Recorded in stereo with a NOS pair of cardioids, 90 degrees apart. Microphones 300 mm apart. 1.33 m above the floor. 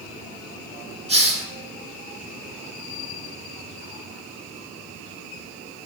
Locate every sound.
1.1 s a hiss: 20° right, 1.6 m